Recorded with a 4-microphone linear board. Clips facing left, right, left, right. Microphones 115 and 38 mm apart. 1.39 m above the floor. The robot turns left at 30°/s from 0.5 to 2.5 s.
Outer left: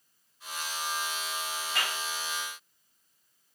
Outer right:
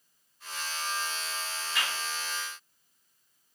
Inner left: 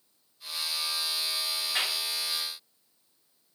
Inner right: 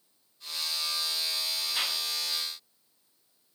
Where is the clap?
65° left (ahead or behind), 4.5 m; by 2.0 s 75° left (ahead or behind), 4.5 m.